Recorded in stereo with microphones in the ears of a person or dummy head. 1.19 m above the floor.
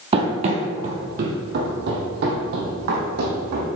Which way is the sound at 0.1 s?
35° right (ahead or behind).